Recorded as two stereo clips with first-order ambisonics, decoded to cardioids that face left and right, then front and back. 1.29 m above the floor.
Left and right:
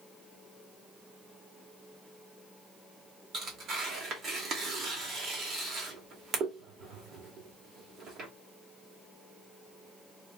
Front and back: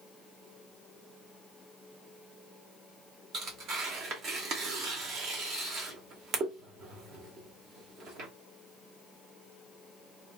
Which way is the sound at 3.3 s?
145° right.